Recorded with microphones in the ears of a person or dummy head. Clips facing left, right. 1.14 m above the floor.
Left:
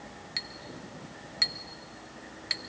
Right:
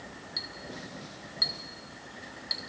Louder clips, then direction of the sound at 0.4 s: Right 2 dB; 30° left (ahead or behind).